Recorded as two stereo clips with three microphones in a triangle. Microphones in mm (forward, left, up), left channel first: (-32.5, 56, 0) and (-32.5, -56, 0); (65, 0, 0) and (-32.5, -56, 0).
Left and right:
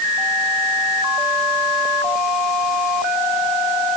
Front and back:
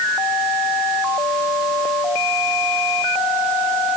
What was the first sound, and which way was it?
Only background noise.